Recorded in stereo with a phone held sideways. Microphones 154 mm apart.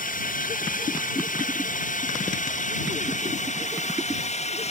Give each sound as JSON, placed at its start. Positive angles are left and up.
{"t": 0.0, "sound": "a drone", "side_deg": 60}